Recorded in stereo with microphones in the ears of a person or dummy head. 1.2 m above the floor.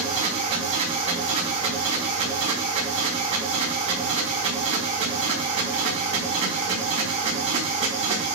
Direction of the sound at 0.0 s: 35° right (ahead or behind).